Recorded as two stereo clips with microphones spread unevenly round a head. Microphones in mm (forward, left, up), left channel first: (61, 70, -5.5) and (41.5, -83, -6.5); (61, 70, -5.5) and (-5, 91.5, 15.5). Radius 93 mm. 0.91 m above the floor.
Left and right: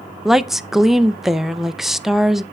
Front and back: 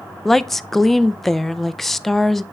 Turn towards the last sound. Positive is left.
turn(degrees=-15)